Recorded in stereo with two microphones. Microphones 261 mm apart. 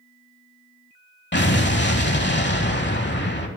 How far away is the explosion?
About 0.9 m.